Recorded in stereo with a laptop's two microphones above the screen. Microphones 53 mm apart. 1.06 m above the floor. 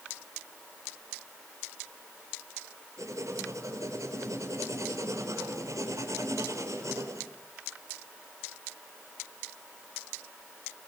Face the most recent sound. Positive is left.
turn(degrees=-80)